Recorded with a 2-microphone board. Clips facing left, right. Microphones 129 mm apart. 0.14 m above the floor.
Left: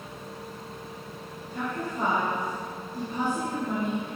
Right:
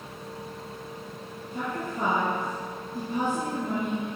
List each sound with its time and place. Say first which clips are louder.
1.5 s a woman speaking: even; 20° right (ahead or behind), 2.5 m